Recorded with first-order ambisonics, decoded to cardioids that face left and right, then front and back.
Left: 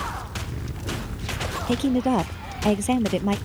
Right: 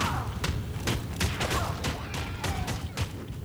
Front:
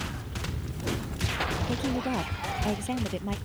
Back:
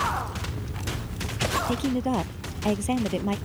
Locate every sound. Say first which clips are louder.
1.7 s a woman speaking: left 11 dB, back 3 dB; 100° left; by 3.4 s 105° left